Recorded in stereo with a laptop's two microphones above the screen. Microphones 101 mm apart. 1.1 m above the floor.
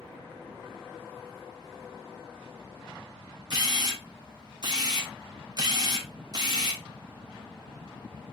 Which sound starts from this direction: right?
A camera shutter, at 3.5 s.